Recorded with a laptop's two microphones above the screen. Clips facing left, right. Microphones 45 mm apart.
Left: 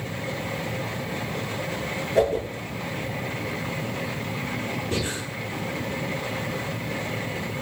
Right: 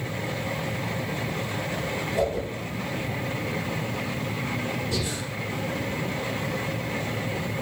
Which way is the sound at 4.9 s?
35° left (ahead or behind).